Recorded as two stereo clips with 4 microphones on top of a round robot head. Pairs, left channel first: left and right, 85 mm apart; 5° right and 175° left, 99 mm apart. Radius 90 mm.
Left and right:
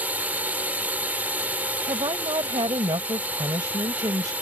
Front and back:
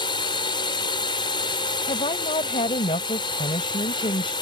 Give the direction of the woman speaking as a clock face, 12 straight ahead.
1 o'clock.